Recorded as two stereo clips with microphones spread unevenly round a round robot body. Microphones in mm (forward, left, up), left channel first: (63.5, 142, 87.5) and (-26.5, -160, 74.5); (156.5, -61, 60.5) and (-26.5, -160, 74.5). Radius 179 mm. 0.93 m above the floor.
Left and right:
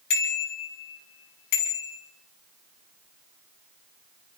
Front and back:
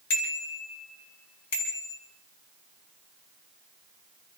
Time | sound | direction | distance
0.1 | a bicycle bell | 45° left | 5 m